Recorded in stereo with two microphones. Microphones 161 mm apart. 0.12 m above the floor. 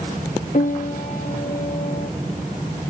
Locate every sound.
0.5 s a piano: 60° left (ahead or behind), 1.3 m